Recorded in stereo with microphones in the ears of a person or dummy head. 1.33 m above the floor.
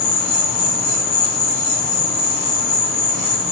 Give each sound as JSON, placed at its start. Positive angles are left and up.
{"t": 0.0, "sound": "an insect", "side_deg": 10, "distance_m": 4.0}